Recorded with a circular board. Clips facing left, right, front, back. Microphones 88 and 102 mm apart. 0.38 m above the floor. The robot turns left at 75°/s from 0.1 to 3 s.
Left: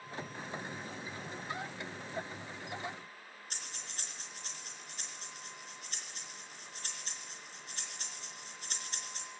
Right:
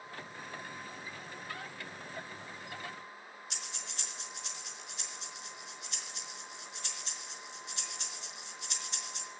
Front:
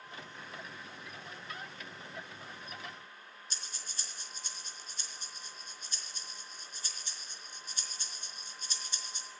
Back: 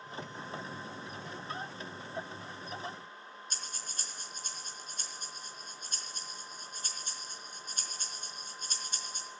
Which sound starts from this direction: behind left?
Breathing, at 3.5 s.